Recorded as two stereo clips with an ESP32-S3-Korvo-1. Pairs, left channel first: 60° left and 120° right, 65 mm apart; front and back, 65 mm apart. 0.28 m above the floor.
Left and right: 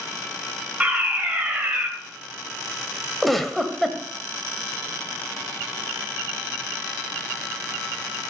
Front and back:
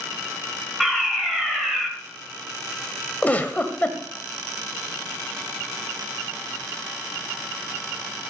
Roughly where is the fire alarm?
Right.